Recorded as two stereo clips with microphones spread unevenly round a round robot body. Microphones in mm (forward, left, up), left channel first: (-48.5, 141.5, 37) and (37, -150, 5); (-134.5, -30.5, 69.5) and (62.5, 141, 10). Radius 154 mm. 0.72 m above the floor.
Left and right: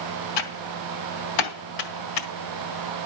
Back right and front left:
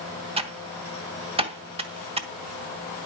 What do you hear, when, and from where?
0.4 s typing on a keyboard: 110° left, 1.7 m